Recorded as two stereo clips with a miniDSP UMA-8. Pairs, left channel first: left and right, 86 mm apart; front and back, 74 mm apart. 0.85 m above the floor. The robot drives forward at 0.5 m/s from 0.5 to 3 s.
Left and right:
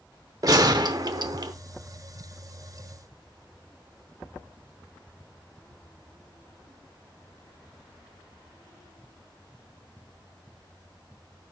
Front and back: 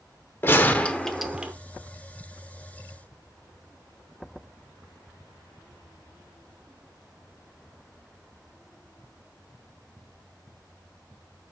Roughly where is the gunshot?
Ahead right.